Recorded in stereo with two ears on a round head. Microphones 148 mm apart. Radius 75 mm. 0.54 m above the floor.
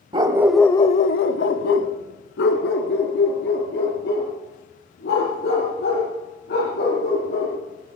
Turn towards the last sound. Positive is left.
turn(degrees=70)  # may be behind; listen again after turning